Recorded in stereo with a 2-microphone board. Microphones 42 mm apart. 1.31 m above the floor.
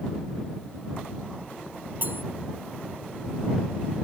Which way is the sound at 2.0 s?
45° right (ahead or behind).